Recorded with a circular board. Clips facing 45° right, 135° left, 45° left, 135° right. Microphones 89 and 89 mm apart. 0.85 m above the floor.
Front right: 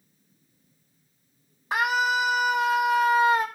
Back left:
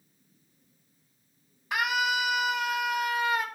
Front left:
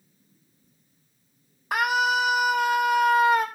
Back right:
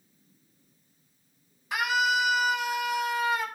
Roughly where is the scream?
Ahead.